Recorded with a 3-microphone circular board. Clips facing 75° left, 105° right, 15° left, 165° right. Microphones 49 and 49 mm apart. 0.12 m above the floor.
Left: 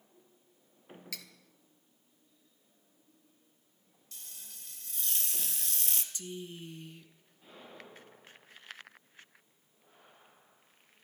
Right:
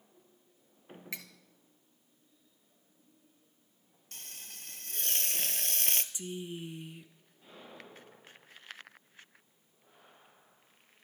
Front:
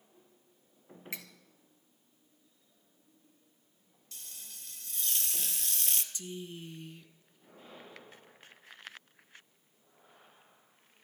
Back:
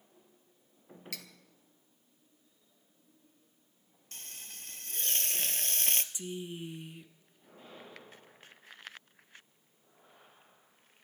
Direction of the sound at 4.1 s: 130° right.